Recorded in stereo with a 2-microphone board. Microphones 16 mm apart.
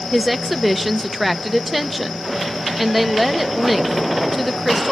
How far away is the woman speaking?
About 0.8 m.